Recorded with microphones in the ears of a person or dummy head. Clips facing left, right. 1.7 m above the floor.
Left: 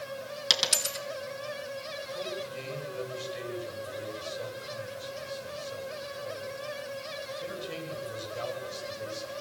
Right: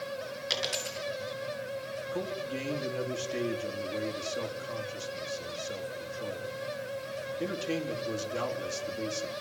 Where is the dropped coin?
65° left (ahead or behind), 4 m.